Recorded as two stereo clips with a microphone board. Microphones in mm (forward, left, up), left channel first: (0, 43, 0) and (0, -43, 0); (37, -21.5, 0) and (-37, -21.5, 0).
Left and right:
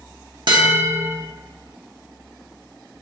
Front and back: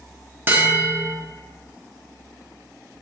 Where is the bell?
120° right, 0.6 m.